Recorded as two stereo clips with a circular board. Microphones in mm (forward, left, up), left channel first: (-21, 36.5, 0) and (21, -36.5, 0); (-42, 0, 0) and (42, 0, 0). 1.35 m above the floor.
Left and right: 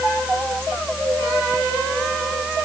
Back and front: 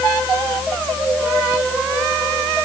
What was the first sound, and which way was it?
Only background noise.